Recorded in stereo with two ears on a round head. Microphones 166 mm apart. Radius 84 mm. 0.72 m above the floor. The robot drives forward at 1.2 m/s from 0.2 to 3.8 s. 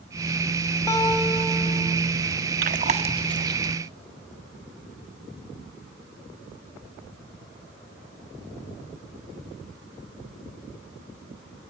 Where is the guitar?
15° left (ahead or behind), 3.5 m; by 2.0 s 10° left (ahead or behind), 4.5 m.